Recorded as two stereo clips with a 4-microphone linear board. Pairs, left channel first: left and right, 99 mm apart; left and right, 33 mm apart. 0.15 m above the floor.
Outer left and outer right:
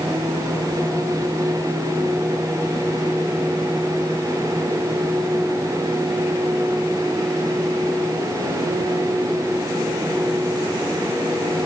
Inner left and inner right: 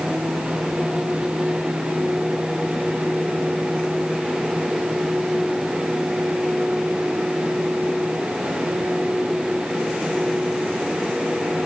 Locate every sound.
Only background noise.